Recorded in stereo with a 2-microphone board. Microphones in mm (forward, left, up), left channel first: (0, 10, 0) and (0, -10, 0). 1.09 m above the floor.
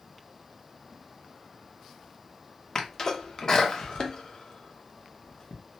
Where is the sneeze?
40° left (ahead or behind), 0.8 m.